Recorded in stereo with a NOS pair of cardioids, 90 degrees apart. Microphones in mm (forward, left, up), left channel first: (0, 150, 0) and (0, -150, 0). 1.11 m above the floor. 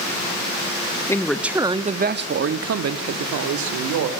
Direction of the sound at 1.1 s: 10° left.